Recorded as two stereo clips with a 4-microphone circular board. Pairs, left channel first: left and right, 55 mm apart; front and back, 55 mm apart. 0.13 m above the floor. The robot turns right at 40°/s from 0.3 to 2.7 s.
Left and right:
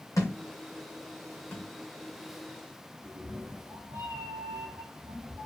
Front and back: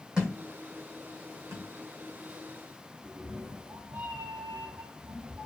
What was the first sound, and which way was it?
A thud, 105° left.